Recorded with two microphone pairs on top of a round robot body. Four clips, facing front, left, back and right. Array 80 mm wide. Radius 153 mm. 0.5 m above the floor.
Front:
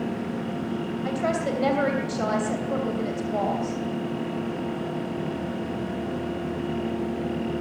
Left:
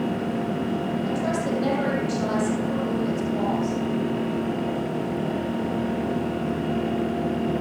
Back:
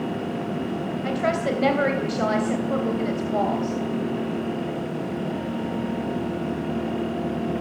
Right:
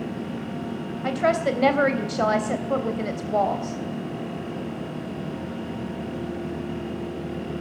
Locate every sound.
1.0 s a woman speaking: 105° right, 3 m